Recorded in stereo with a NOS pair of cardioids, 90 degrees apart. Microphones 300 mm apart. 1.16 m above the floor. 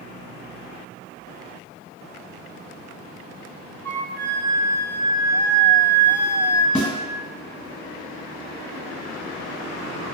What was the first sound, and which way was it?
A flute, 5° left.